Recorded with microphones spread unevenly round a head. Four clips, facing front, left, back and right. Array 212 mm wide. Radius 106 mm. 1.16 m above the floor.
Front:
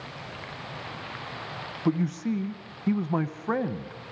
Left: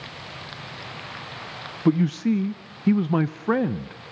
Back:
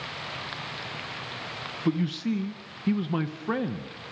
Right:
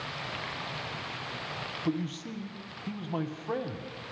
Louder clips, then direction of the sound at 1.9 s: Left 13 dB, even; 95° left.